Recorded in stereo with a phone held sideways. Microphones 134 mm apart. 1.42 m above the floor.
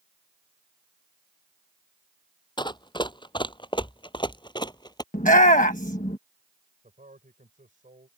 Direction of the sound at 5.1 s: 75° left (ahead or behind).